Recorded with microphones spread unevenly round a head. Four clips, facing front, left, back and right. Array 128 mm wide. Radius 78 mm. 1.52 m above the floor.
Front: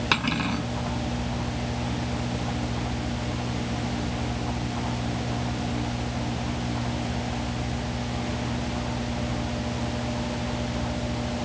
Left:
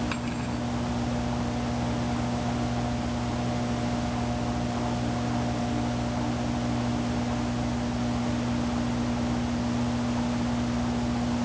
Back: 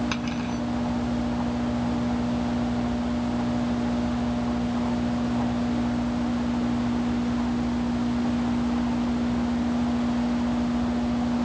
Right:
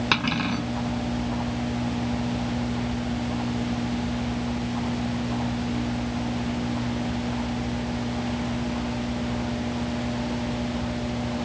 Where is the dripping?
I don't hear dripping.